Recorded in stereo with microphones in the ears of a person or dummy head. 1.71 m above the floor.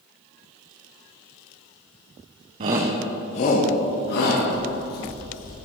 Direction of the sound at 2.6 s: 30° right (ahead or behind).